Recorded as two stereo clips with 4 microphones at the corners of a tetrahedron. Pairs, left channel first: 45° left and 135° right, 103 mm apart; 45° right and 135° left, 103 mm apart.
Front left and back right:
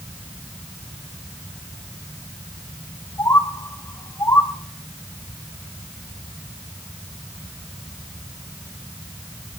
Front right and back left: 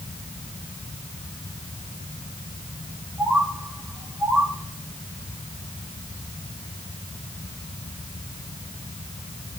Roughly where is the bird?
Ahead left.